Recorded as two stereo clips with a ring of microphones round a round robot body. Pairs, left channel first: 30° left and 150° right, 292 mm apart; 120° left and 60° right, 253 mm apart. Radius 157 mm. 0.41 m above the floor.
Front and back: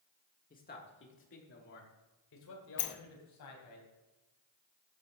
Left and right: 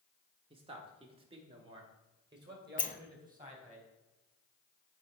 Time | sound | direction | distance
0.5 | a man speaking | 10° right | 1.1 m
2.8 | a sliding door | 60° left | 0.9 m